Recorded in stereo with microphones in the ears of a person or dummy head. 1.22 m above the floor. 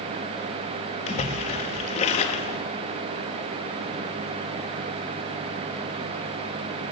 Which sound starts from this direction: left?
A splash, at 1.1 s.